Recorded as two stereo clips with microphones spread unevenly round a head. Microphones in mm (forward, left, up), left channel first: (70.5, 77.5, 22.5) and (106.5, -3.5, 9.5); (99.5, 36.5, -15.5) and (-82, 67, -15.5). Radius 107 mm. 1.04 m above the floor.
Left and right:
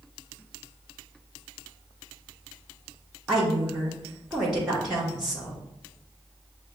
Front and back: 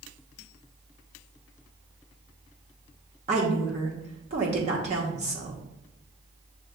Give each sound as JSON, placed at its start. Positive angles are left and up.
{"t": 3.3, "sound": "a woman speaking", "azimuth_deg": -140, "distance_m": 0.9}